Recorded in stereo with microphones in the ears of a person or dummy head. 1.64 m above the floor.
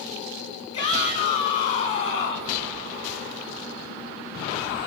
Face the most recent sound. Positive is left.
turn(degrees=20)  # may be behind; listen again after turning